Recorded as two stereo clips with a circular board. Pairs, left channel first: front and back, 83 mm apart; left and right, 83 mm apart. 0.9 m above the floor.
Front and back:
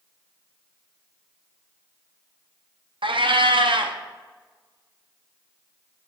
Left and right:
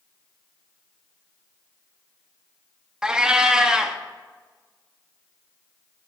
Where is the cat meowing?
170° right, 0.6 m.